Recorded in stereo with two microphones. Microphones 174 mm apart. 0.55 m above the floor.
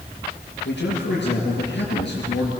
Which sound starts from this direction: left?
A man speaking, at 0.7 s.